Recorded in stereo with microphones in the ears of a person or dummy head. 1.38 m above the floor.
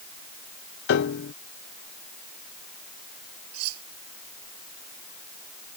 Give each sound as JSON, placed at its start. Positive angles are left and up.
{"t": 0.9, "sound": "a piano", "side_deg": 60}
{"t": 3.5, "sound": "cutlery clinking", "side_deg": -85}